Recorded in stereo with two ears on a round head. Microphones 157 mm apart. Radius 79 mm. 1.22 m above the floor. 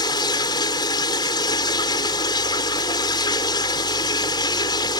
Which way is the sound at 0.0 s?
25° left (ahead or behind).